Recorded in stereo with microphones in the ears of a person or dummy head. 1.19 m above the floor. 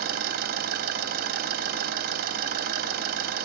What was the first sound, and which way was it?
An engine running, 55° right (ahead or behind).